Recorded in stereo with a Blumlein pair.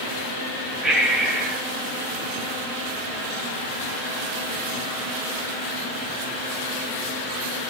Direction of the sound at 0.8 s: 10° right.